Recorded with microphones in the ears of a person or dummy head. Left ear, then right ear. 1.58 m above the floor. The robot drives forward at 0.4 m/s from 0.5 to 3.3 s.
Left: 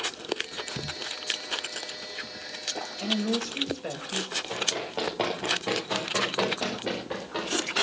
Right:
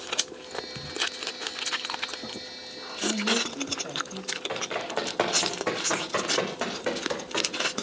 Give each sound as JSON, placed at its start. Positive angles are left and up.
{"t": 3.0, "sound": "a woman speaking", "side_deg": 30, "distance_m": 2.5}
{"t": 4.5, "sound": "running footsteps", "side_deg": -60, "distance_m": 8.0}